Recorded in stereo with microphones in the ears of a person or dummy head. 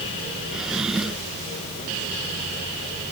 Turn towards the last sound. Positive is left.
turn(degrees=-5)  # may be behind; listen again after turning